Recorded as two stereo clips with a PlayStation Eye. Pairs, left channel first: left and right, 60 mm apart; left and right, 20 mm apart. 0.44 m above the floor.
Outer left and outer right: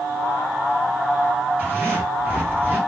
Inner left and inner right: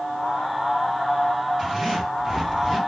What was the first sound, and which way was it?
A zipper, 30° right (ahead or behind).